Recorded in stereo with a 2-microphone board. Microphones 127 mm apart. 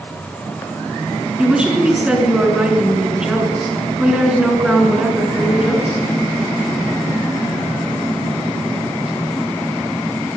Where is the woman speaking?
5° right (ahead or behind), 5 m.